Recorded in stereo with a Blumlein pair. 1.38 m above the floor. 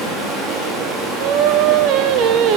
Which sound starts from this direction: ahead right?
Singing, at 1.2 s.